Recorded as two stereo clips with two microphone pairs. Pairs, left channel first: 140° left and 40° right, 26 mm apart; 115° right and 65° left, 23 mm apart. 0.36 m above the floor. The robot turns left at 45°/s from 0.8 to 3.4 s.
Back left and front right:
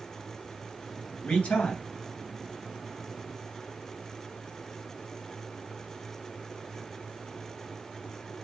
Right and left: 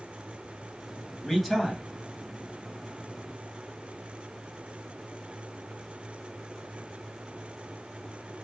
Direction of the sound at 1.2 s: 160° left.